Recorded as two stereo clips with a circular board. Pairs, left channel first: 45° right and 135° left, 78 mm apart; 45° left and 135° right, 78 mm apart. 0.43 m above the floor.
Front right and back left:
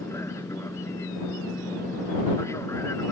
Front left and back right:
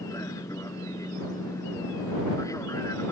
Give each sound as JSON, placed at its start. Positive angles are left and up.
{"t": 0.0, "sound": "an aircraft", "azimuth_deg": 5}